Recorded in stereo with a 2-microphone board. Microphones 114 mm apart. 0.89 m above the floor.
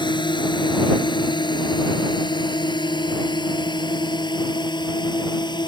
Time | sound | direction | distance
0.0 | a drone | 40° left (ahead or behind) | ?